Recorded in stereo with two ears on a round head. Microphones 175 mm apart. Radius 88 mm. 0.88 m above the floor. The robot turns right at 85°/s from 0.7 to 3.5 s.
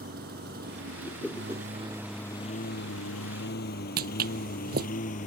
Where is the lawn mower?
50° right (ahead or behind); by 5.3 s 40° left (ahead or behind).